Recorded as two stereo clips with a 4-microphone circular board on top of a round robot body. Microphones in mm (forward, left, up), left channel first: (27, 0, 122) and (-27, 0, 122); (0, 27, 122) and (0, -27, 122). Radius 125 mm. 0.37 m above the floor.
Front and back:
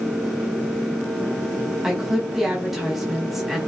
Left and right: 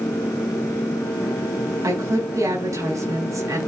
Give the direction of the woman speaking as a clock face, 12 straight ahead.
3 o'clock.